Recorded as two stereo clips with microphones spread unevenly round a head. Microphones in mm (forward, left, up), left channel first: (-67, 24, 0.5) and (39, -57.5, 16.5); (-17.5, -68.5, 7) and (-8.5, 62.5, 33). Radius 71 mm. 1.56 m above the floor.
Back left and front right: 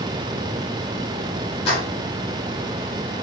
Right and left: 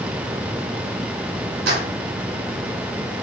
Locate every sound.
1.7 s keys jangling: 85° left, 3.5 m